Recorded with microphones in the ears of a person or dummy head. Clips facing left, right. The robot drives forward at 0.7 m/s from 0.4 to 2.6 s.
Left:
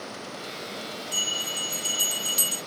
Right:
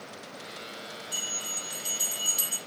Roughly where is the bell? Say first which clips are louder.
Left 6 dB; left.